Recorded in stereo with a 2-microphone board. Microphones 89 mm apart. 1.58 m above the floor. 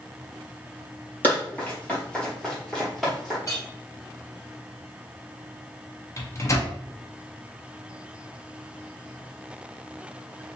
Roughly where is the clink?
Left.